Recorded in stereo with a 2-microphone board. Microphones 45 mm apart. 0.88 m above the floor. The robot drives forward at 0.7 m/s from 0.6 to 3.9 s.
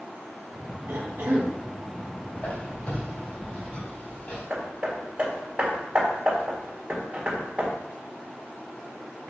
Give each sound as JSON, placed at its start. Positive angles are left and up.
{"t": 0.9, "sound": "a cough", "side_deg": -55, "distance_m": 1.4}
{"t": 2.4, "sound": "a squeak", "side_deg": 35, "distance_m": 2.5}
{"t": 4.5, "sound": "hammering", "side_deg": -25, "distance_m": 1.8}